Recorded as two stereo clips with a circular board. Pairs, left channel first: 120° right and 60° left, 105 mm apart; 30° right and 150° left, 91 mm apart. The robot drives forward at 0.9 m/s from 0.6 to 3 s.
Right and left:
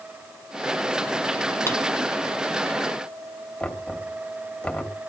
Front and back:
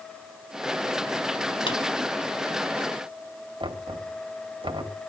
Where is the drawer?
55° right, 2 m.